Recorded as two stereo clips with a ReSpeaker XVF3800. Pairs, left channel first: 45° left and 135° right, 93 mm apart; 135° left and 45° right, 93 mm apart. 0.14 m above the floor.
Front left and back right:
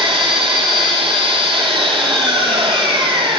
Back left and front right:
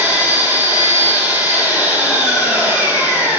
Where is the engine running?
115° right, 1.2 m.